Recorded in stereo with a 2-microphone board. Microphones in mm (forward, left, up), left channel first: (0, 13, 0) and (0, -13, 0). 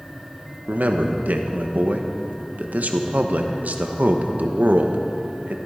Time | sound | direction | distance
0.7 | a man speaking | 85° right | 1.2 m